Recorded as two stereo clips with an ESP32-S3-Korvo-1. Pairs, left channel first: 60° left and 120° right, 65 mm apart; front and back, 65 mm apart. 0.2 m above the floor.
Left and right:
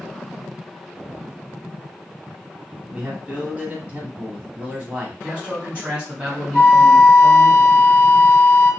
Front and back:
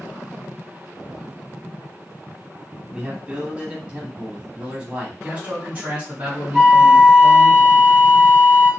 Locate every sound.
2.9 s a man speaking: 140° right, 1.1 m
5.2 s a man speaking: 160° right, 1.5 m
6.5 s a flute: 85° left, 1.2 m